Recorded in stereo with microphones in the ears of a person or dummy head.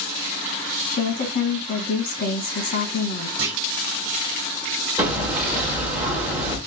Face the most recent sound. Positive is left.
turn(degrees=-15)  # may be behind; listen again after turning